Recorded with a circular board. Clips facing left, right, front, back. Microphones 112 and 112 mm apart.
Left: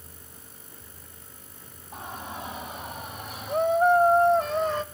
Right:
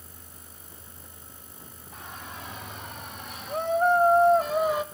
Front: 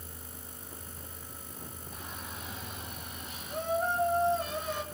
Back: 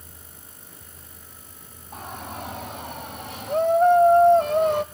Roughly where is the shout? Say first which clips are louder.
Left 5 dB, back 12 dB; behind left.